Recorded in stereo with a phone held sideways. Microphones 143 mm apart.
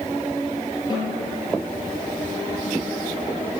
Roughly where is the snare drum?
Left.